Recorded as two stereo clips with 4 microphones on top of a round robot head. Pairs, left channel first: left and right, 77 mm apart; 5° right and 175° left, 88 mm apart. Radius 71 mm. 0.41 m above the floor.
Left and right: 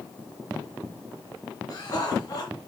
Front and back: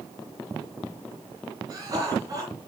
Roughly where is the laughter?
Behind left.